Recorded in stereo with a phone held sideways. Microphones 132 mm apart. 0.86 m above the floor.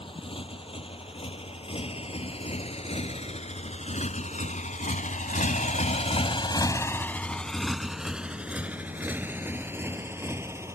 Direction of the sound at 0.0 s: 45° left (ahead or behind).